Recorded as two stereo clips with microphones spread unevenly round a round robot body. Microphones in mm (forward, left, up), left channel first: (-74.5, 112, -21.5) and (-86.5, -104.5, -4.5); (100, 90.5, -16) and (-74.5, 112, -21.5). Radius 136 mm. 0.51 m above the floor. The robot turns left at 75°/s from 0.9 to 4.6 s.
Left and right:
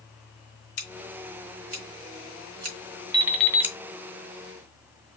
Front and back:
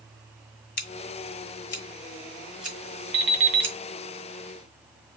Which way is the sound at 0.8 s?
30° left.